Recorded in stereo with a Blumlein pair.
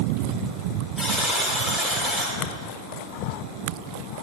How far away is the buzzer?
About 4 m.